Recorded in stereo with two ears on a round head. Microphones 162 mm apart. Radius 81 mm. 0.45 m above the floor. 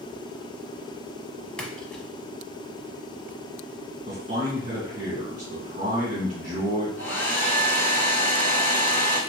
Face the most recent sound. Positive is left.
turn(degrees=10)  # may be behind; listen again after turning